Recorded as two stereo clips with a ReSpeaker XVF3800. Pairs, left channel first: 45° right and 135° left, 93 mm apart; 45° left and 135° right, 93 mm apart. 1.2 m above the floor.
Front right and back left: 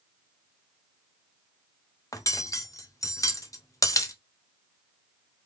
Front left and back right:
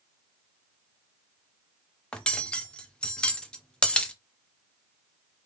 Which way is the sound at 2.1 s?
30° right.